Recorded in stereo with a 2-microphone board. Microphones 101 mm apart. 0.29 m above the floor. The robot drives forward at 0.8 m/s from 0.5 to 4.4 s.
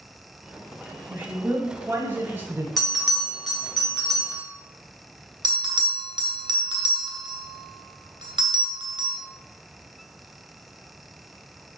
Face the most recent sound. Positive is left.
turn(degrees=-45)  # may be behind; listen again after turning